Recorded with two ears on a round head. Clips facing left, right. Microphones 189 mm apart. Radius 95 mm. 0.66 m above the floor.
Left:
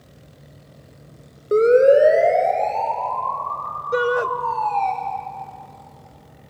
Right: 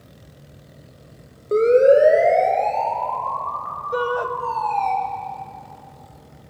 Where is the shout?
25° left (ahead or behind), 0.7 m.